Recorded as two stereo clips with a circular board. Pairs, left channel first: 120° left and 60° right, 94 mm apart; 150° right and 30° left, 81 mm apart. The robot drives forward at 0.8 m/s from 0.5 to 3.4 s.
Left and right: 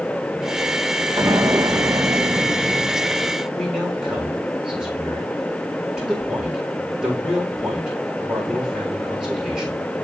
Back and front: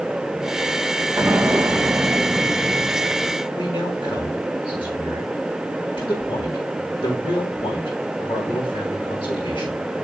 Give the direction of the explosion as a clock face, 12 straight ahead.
1 o'clock.